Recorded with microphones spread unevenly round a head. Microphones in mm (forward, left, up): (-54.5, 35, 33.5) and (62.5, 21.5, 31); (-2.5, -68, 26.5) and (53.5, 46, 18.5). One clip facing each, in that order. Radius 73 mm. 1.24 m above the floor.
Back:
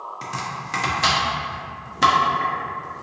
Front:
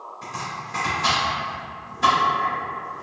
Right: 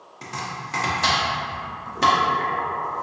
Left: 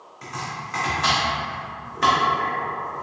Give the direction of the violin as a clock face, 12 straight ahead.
I don't hear a violin.